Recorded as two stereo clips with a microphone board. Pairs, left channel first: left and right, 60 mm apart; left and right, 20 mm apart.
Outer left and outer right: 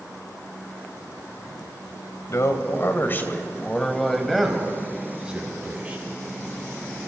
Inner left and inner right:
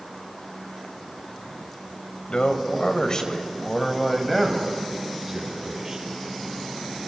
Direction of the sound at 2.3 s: 55° left (ahead or behind).